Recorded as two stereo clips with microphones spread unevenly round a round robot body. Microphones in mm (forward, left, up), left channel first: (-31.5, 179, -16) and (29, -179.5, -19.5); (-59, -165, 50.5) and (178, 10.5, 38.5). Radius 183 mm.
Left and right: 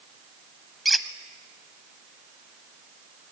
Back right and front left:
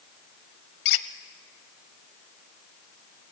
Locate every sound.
0.8 s a squeak: 170° right, 0.7 m